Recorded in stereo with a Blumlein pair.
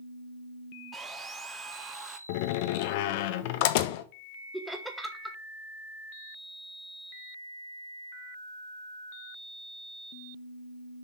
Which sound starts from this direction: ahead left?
A door slam, at 2.3 s.